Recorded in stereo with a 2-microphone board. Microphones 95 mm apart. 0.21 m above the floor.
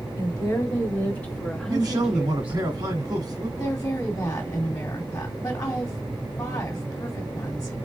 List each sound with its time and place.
0.2 s a woman speaking: 35° left (ahead or behind), 1.6 m; by 2.6 s 20° right (ahead or behind), 1.4 m
1.7 s a man speaking: 45° right (ahead or behind), 1.7 m
3.5 s a woman speaking: 30° left (ahead or behind), 1.8 m